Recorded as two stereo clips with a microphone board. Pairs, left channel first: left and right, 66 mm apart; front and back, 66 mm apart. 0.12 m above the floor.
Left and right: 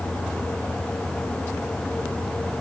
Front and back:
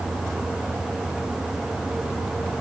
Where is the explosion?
I don't hear an explosion.